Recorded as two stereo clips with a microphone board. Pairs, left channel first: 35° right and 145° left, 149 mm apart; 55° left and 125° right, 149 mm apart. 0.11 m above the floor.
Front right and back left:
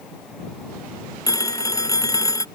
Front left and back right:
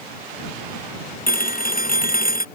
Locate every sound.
1.3 s a phone ringing: 35° left